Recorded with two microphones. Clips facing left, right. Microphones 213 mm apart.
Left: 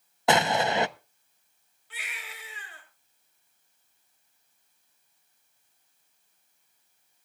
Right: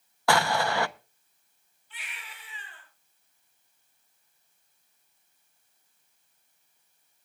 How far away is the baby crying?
About 5 m.